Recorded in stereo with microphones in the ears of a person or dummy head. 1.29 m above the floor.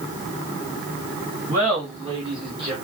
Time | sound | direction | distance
1.5 | laughter | 20° right (ahead or behind) | 1.7 m